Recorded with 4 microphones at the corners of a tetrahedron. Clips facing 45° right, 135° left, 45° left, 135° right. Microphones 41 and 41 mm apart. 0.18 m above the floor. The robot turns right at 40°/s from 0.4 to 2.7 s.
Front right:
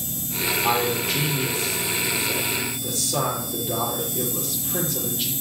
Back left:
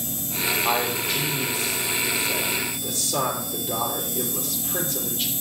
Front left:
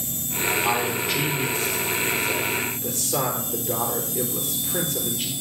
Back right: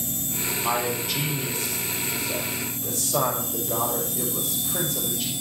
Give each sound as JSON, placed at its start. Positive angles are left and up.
{"t": 0.6, "sound": "a man speaking", "azimuth_deg": -45, "distance_m": 3.5}